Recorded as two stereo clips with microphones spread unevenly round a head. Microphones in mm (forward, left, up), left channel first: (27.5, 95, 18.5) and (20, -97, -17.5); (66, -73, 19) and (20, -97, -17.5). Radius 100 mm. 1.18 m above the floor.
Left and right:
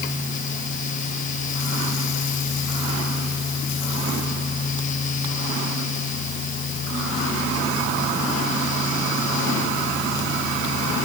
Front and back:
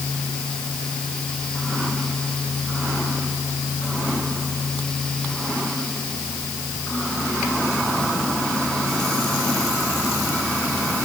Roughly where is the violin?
I don't hear a violin.